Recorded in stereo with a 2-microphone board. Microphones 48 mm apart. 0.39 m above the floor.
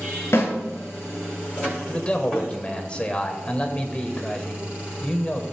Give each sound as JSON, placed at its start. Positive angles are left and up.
{"t": 0.3, "sound": "a snare drum", "side_deg": 65, "distance_m": 5.0}
{"t": 1.9, "sound": "a man speaking", "side_deg": 25, "distance_m": 1.5}